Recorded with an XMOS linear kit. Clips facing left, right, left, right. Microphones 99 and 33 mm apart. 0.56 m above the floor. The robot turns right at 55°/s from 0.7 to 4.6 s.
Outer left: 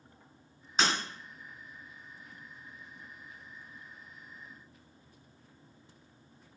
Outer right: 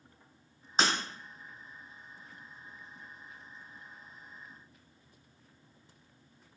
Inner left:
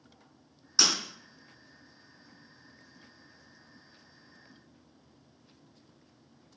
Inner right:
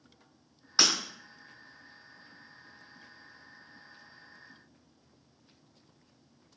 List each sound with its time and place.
0.8 s breaking glass: 35° right (ahead or behind), 1.5 m; by 0.9 s 45° right (ahead or behind), 1.5 m